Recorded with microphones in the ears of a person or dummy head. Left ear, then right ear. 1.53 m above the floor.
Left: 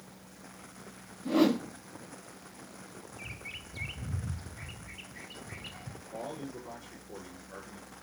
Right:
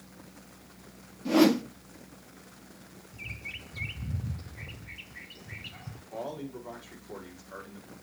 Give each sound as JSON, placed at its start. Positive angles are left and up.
{"t": 1.2, "sound": "a whoosh", "side_deg": -15, "distance_m": 0.9}
{"t": 3.1, "sound": "a bird", "side_deg": 0, "distance_m": 0.6}
{"t": 6.1, "sound": "a man speaking", "side_deg": -10, "distance_m": 6.0}